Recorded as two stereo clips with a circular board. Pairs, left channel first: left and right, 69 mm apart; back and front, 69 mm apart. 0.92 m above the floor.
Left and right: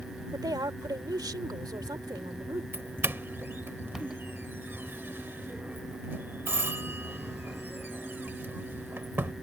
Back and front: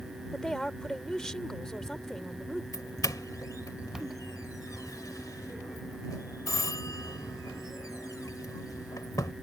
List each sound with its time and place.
0.3 s a woman speaking: 100° right
2.7 s a doorbell: 150° right